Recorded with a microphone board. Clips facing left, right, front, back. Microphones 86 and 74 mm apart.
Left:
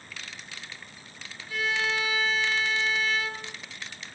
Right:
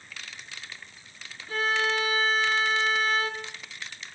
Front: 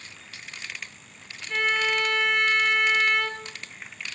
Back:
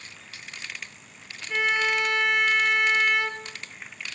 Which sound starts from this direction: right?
A violin, at 1.5 s.